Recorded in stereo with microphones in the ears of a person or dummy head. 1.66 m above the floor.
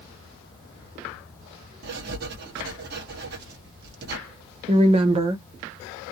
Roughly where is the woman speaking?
Right.